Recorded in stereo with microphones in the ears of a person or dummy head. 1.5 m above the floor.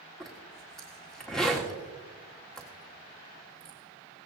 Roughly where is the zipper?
Centre.